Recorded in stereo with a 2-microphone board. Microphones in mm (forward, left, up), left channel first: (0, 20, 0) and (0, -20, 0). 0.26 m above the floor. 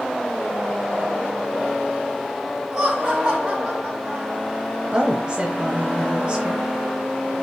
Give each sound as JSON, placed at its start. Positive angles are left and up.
{"t": 2.7, "sound": "laughter", "side_deg": -20, "distance_m": 3.0}
{"t": 4.9, "sound": "a woman speaking", "side_deg": -25, "distance_m": 1.1}